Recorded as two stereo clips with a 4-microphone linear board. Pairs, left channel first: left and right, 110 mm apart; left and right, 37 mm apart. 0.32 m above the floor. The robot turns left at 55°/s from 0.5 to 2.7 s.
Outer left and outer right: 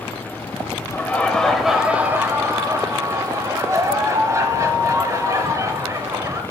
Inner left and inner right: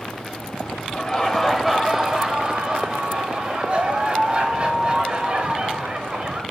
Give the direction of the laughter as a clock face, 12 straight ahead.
11 o'clock.